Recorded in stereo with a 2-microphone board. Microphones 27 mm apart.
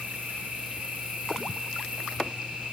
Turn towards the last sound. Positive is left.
turn(degrees=-55)  # may be behind; listen again after turning